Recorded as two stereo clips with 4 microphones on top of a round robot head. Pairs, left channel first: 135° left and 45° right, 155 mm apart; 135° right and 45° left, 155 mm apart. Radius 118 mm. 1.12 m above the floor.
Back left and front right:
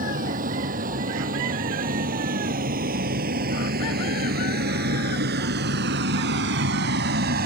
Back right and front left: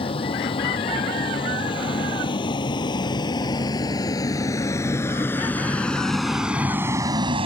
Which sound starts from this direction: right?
A vehicle, at 0.0 s.